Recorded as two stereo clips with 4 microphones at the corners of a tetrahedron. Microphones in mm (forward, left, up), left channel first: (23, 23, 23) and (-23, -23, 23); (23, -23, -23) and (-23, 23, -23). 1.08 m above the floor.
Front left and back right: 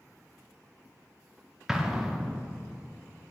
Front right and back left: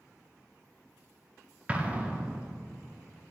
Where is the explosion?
160° left, 0.6 m.